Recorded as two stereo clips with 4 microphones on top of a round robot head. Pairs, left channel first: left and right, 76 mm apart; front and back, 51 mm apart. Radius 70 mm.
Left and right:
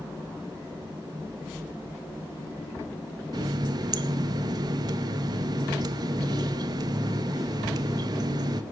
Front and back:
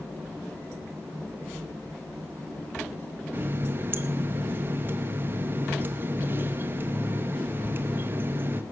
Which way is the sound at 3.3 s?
125° right.